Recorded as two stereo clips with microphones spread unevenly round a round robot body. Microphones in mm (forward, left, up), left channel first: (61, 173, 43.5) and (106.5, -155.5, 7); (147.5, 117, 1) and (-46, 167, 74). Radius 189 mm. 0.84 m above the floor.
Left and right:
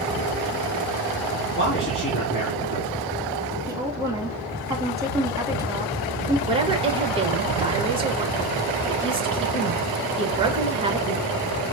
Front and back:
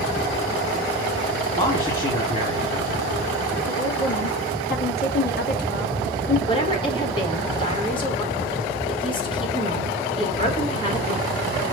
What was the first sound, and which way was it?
A man speaking, 40° left.